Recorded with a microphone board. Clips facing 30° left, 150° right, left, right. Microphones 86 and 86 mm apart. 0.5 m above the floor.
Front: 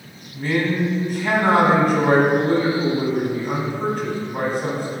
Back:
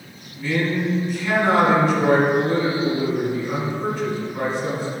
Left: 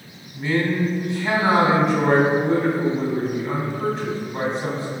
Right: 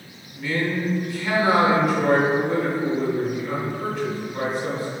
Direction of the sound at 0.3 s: 40° left.